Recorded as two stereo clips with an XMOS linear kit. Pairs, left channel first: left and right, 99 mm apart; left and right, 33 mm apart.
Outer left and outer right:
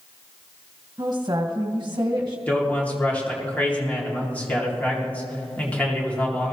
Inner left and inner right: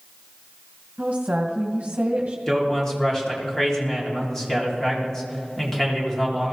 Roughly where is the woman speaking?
Right.